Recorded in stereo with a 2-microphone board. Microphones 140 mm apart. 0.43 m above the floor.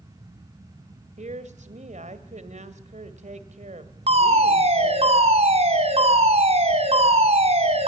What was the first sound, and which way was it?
A woman speaking, 60° right (ahead or behind).